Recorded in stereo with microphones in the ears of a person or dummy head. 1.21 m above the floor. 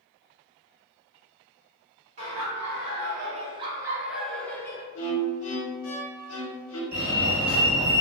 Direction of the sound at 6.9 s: 10° right (ahead or behind).